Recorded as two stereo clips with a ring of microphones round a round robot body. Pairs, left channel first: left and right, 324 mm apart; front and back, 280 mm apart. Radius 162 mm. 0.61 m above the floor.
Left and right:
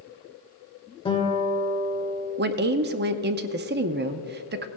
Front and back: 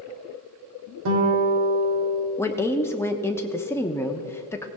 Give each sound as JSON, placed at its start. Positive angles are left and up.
{"t": 1.1, "sound": "a guitar", "azimuth_deg": 165, "distance_m": 1.9}
{"t": 2.4, "sound": "a woman speaking", "azimuth_deg": -75, "distance_m": 0.6}